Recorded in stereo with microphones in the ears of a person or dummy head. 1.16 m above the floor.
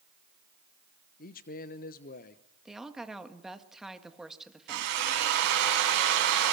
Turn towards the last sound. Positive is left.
turn(degrees=-65)  # may be behind; listen again after turning